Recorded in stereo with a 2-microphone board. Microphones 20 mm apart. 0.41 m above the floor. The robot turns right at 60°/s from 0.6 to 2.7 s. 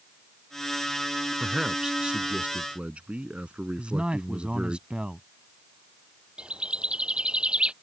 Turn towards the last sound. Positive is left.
turn(degrees=-60)  # may be behind; listen again after turning